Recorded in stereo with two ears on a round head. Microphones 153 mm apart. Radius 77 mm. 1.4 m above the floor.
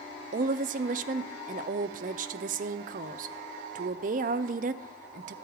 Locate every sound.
0.3 s a woman speaking: 50° right (ahead or behind), 0.5 m